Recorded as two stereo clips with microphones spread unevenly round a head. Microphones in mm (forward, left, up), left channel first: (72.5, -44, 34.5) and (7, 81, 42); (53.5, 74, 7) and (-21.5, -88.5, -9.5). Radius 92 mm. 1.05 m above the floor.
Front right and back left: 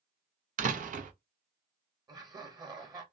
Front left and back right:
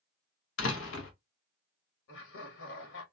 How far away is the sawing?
I don't hear sawing.